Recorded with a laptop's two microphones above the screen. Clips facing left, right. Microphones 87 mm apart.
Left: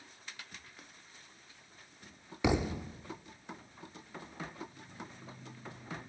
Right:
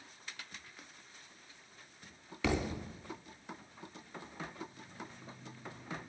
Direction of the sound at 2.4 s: 20° left (ahead or behind).